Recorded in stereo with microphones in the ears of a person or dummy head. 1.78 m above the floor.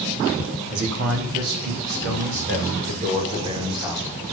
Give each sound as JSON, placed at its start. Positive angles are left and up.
{"t": 0.7, "sound": "a man speaking", "side_deg": -80, "distance_m": 4.0}